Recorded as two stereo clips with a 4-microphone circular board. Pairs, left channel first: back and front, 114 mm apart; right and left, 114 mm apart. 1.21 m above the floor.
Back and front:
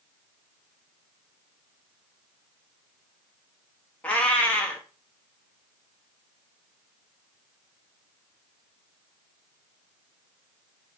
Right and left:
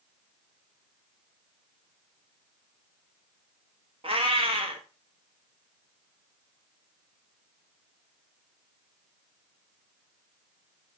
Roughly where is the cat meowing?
Left.